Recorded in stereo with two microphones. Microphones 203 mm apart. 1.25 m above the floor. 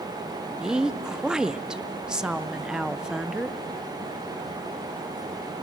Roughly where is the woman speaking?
Centre.